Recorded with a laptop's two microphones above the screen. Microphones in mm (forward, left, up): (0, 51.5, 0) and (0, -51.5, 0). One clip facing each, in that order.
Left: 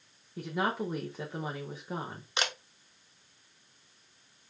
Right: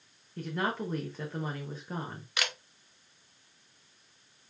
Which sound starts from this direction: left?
A camera shutter, at 2.4 s.